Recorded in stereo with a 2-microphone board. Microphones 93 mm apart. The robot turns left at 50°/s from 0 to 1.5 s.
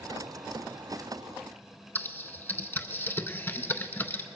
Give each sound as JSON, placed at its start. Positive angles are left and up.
{"t": 1.9, "sound": "typing on a keyboard", "side_deg": 25, "distance_m": 0.6}